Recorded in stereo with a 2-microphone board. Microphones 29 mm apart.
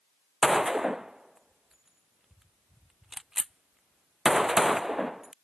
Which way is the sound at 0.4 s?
10° right (ahead or behind).